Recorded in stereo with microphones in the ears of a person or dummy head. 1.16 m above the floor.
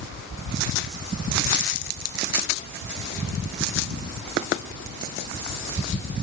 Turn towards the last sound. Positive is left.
No sound to turn to.